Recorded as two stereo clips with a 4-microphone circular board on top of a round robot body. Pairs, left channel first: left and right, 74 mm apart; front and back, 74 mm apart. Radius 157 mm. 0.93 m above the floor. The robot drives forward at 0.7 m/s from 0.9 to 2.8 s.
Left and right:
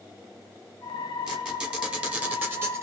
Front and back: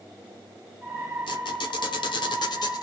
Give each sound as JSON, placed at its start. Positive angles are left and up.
{"t": 1.3, "sound": "a squeak", "azimuth_deg": -10, "distance_m": 1.5}